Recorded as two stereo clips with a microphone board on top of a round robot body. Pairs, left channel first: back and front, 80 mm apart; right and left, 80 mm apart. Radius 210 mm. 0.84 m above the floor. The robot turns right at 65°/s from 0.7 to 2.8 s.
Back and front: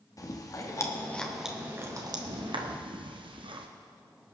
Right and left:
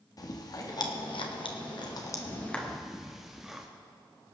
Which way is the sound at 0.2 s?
130° right.